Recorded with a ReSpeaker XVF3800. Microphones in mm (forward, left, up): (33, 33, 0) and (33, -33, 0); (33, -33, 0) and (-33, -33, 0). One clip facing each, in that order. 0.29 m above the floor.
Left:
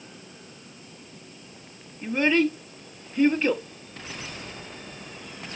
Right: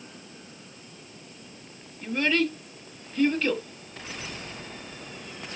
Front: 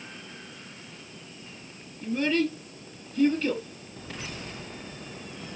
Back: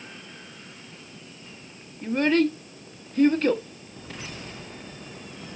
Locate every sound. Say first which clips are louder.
2.0 s a child speaking: left 3 dB, back 4 dB; 155° left, 1.2 m